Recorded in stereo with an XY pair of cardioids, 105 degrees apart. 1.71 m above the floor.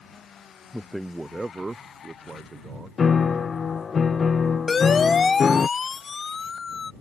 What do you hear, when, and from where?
0.7 s a man speaking: 5° left; by 2.9 s 30° right
3.0 s a piano: 35° left
4.7 s a siren: 40° left